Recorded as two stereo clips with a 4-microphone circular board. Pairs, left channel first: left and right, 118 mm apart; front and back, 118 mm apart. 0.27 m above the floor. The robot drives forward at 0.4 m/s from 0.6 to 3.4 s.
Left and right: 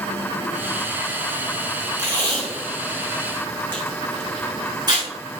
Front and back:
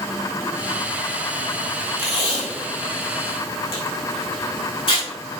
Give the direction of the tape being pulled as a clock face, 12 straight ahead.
1 o'clock.